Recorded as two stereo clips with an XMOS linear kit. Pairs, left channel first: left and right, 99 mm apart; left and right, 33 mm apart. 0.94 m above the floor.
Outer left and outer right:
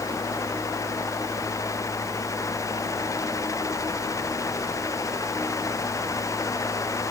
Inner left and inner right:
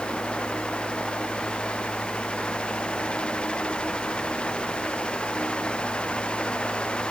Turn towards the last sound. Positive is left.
No sound to turn to.